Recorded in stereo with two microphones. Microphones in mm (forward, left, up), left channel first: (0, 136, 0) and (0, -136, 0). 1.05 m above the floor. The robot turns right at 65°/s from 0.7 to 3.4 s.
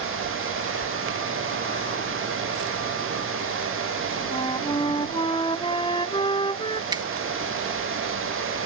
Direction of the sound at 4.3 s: 20° left (ahead or behind).